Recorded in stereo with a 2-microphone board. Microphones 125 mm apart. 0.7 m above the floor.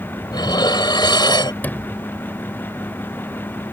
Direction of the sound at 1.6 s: 15° left (ahead or behind).